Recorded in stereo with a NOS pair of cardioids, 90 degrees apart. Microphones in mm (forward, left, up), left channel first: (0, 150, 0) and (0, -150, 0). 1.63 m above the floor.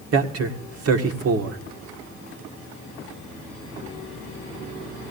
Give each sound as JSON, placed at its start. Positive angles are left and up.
{"t": 0.1, "sound": "a man speaking", "azimuth_deg": -50, "distance_m": 1.8}